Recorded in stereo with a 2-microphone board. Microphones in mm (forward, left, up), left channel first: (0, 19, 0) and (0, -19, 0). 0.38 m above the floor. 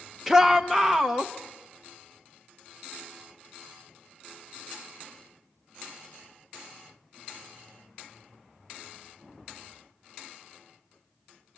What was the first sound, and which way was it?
A shout, 5° right (ahead or behind).